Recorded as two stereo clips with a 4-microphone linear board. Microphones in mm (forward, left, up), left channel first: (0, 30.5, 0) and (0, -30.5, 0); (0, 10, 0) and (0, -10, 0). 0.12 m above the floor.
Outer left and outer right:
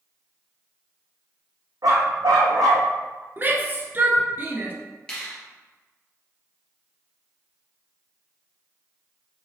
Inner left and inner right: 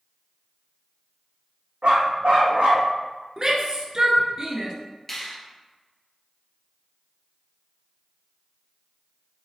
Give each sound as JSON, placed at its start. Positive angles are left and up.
{"t": 1.8, "sound": "a dog barking", "side_deg": -80, "distance_m": 2.5}
{"t": 3.4, "sound": "a shout", "side_deg": -30, "distance_m": 1.3}
{"t": 5.1, "sound": "a finger snap", "side_deg": 15, "distance_m": 2.5}